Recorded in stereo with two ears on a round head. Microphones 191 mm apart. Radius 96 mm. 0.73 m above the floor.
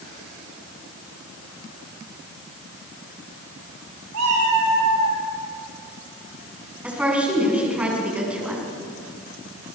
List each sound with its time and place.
4.1 s a cat meowing: 80° right, 10 m; by 5.2 s 85° right, 10.5 m
6.8 s a woman speaking: 5° right (ahead or behind), 7.5 m